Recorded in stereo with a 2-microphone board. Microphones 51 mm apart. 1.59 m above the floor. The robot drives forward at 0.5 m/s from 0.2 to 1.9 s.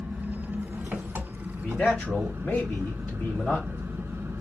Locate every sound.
0.0 s an engine running: 30° right (ahead or behind), 1.3 m; by 4.4 s 45° right (ahead or behind), 0.9 m
1.6 s a man speaking: 30° left (ahead or behind), 2.5 m